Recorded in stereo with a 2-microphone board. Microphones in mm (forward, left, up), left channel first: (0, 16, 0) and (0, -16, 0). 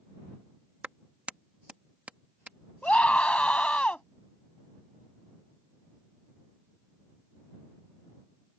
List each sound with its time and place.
0.8 s a clap: 45° right (ahead or behind)
2.8 s a scream: 40° left (ahead or behind)